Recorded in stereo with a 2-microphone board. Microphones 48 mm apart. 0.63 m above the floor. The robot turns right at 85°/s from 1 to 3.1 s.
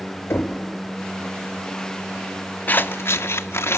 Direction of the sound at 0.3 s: 65° left (ahead or behind).